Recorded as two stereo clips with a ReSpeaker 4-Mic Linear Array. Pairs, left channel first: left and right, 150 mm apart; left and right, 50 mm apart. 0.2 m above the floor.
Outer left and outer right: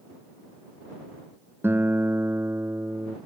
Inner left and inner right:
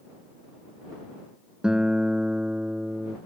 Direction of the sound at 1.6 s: 15° right (ahead or behind).